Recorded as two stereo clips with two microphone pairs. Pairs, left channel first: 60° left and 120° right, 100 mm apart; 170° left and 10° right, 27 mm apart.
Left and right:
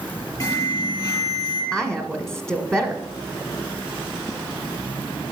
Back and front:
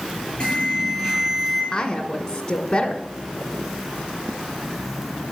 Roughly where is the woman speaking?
Behind left.